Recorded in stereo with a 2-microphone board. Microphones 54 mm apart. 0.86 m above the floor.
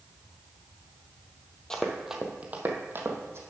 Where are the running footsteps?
15° left (ahead or behind), 1.2 m; by 3.4 s 50° right (ahead or behind), 1.7 m.